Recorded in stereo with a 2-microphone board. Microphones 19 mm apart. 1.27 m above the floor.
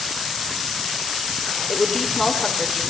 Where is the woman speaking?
25° left (ahead or behind), 4.5 m.